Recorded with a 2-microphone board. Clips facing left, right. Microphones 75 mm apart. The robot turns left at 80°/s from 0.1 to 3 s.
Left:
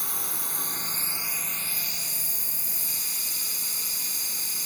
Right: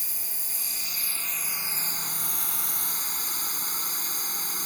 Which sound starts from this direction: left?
A drone, at 0.0 s.